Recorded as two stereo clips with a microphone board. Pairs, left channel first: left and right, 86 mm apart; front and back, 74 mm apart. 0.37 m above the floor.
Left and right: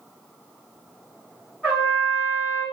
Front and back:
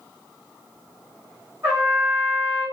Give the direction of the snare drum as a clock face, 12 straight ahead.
No snare drum in this recording.